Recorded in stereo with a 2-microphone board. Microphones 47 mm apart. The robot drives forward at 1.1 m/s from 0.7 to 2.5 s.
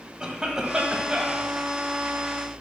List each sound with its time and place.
0.2 s a cough: 15° right (ahead or behind), 1.6 m